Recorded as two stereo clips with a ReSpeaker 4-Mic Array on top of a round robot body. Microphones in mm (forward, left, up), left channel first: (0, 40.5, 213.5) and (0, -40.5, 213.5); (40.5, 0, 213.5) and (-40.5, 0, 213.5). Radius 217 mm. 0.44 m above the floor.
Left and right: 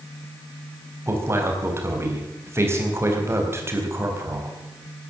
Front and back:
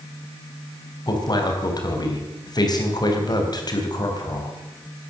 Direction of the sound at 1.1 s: 35° right.